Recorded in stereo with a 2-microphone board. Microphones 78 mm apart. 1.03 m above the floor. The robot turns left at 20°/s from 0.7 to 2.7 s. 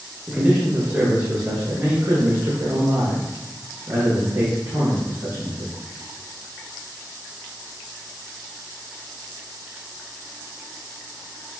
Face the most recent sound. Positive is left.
turn(degrees=-75)